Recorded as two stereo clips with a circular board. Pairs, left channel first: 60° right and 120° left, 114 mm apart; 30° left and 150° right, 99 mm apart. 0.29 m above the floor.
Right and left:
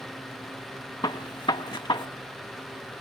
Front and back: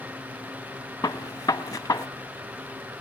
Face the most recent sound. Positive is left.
turn(degrees=-15)